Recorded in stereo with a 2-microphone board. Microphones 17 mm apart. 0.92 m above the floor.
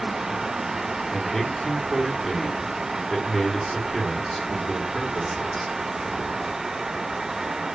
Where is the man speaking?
5° left (ahead or behind), 2.5 m.